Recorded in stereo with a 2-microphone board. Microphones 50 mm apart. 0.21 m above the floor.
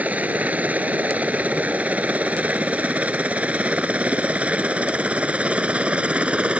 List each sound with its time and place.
0.0 s a helicopter: 30° right (ahead or behind); by 6.6 s 25° right (ahead or behind)